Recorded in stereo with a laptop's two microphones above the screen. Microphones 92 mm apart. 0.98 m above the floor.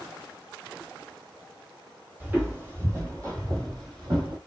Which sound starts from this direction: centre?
Footsteps, at 2.2 s.